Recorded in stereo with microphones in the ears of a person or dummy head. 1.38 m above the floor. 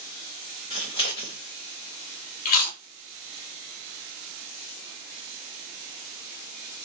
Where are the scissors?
20° left (ahead or behind), 0.8 m.